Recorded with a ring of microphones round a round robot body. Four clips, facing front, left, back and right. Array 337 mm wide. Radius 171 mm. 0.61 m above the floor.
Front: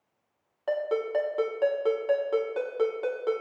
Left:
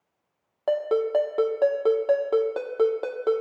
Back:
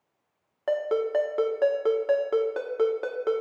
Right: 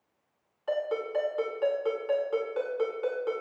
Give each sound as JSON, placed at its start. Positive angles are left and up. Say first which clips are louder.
{"t": 0.7, "sound": "a ringtone", "louder": "left 7 dB, back 2 dB", "azimuth_deg": 110, "distance_m": 1.2}